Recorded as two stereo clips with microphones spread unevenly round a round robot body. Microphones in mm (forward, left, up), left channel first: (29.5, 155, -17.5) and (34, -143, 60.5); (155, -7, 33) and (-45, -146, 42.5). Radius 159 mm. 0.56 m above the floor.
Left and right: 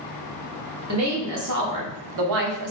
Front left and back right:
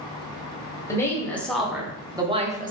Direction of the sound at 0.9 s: 45° right.